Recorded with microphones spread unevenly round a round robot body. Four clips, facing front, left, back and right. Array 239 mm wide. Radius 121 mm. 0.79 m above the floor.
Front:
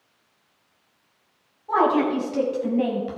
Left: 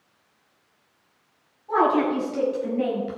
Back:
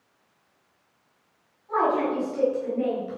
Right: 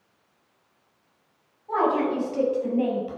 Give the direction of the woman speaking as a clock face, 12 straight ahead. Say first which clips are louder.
Left 2 dB, front 3 dB; 12 o'clock.